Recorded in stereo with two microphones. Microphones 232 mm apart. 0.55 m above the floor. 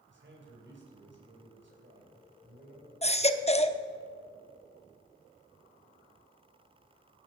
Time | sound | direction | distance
0.1 | a man speaking | 55° right (ahead or behind) | 3.5 m
3.0 | a baby crying | 25° left (ahead or behind) | 0.6 m